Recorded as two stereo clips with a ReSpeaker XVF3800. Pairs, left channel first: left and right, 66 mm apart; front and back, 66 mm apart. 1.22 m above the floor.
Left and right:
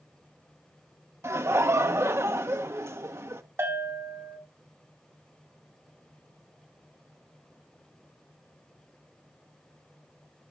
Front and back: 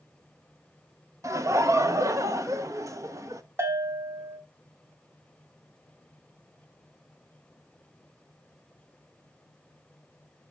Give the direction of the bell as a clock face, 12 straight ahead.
4 o'clock.